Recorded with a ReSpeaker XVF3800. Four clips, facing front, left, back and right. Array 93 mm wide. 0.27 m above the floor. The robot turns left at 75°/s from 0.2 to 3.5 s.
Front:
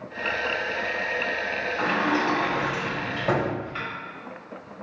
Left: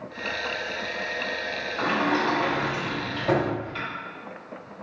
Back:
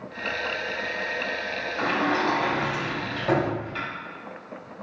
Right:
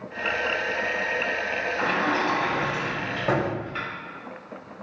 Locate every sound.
1.8 s a sliding door: 70° left, 1.5 m; by 3.9 s 60° right, 1.5 m